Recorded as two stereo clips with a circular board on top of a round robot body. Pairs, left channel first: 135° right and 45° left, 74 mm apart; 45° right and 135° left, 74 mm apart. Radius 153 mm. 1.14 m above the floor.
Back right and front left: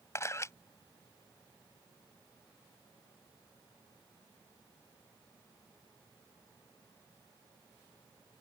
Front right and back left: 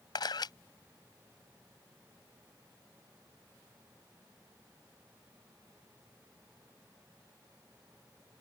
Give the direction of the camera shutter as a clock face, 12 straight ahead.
3 o'clock.